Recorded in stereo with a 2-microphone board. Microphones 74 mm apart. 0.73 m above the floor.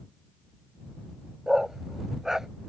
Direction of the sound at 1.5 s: 5° right (ahead or behind).